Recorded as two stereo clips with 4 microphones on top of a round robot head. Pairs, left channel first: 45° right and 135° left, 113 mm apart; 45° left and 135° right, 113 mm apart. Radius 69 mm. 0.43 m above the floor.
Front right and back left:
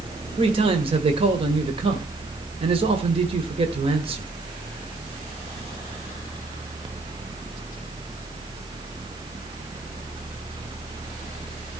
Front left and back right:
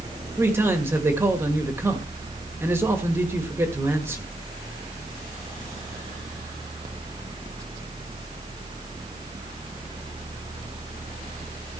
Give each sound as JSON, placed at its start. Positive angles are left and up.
{"t": 0.4, "sound": "a man speaking", "azimuth_deg": 160, "distance_m": 1.5}